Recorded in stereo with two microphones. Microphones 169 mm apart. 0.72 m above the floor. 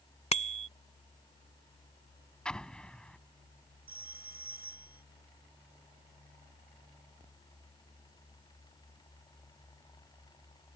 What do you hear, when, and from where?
0.3 s a bicycle bell: 40° left (ahead or behind)
2.5 s an explosion: 5° left (ahead or behind)
3.9 s a phone ringing: 65° right (ahead or behind)